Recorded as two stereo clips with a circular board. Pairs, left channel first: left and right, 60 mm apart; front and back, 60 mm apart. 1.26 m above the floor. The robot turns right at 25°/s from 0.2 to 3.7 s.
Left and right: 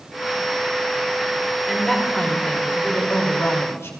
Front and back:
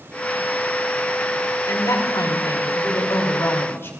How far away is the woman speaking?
About 4.5 m.